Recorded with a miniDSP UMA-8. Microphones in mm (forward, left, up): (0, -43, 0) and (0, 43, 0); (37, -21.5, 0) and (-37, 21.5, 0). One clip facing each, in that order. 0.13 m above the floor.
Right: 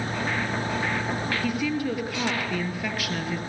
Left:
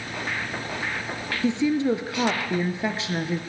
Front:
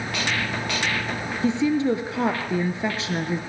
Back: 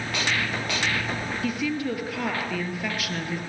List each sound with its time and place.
1.4 s a woman speaking: 30° left, 2.5 m